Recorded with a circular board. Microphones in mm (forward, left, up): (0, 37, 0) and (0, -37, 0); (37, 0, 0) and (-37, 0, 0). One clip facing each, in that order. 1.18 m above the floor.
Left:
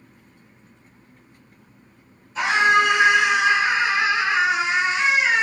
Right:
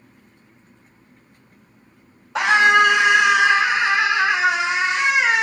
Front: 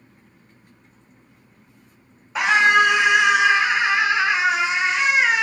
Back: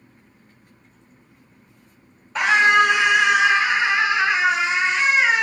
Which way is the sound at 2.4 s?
85° right.